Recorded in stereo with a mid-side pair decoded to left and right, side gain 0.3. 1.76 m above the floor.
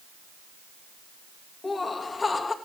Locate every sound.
1.6 s laughter: 45° left, 3 m